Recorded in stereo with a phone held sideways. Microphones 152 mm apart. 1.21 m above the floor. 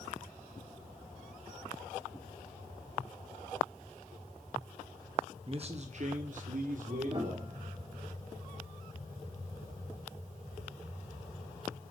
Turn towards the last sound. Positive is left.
turn(degrees=-35)  # may be behind; listen again after turning